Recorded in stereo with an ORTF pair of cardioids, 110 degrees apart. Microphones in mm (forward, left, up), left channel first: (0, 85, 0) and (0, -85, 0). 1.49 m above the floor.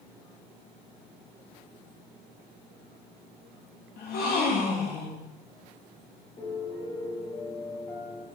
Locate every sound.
4.0 s a gasp: 70° left, 0.7 m
6.4 s a piano: 40° left, 1.3 m